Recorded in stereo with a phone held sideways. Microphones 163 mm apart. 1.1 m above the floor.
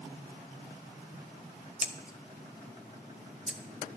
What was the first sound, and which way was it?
Scissors, 5° right (ahead or behind).